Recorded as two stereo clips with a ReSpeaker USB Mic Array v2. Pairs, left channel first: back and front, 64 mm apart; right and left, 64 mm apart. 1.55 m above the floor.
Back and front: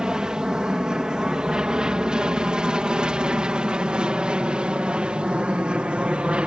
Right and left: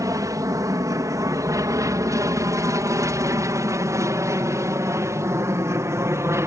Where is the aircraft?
80° left; by 6.5 s 70° left.